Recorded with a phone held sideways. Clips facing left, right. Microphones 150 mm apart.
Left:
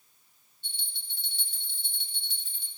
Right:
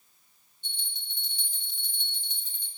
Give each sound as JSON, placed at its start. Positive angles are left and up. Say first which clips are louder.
{"t": 0.6, "sound": "a bell", "louder": "right 2 dB", "side_deg": -20, "distance_m": 4.5}